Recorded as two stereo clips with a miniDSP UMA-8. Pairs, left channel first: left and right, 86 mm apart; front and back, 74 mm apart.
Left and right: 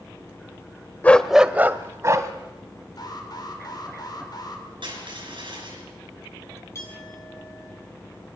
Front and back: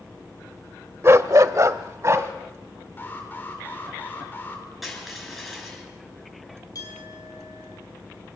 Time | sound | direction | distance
1.0 | a dog barking | 155° left | 0.7 m
3.0 | an alarm | 60° left | 3 m
4.8 | crushing | 90° right | 6.5 m
6.8 | a clink | 35° left | 5.5 m